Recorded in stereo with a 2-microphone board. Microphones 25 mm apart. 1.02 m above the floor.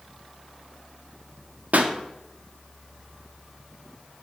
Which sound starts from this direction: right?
A pop, at 1.7 s.